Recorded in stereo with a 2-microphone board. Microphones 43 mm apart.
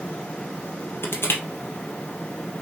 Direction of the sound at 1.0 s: 60° left (ahead or behind).